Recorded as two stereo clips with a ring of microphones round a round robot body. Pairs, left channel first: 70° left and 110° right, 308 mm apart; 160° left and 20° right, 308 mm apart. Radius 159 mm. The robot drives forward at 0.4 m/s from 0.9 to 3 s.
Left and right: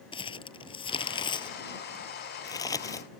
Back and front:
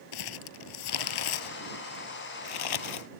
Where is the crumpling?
140° left; by 3.1 s 145° left.